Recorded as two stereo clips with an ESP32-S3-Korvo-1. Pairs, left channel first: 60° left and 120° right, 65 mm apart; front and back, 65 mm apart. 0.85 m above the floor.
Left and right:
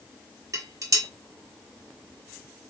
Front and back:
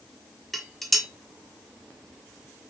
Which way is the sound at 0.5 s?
85° right.